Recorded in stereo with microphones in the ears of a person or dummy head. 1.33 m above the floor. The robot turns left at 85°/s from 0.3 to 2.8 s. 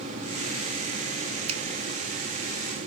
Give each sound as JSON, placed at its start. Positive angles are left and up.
{"t": 1.5, "sound": "a finger snap", "side_deg": -45, "distance_m": 0.9}